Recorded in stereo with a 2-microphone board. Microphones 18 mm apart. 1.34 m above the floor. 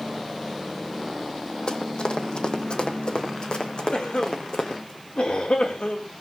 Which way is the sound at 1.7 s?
55° left (ahead or behind).